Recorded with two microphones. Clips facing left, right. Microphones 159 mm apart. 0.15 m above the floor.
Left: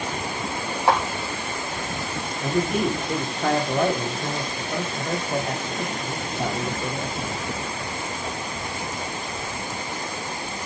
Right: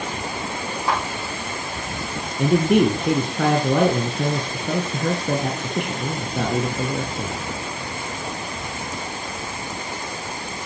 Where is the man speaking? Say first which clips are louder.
Right 7 dB; 75° right (ahead or behind), 4 m.